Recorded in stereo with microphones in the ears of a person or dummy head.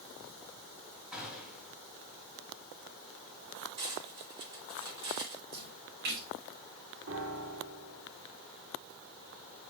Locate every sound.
1.1 s a gunshot: 5° right (ahead or behind), 2.5 m
3.8 s cutlery clinking: 25° right (ahead or behind), 2 m
5.5 s a splash: 55° right (ahead or behind), 6.5 m
7.1 s a piano: 65° right (ahead or behind), 2.5 m